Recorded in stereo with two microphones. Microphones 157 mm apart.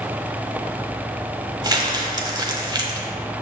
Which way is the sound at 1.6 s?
25° right (ahead or behind).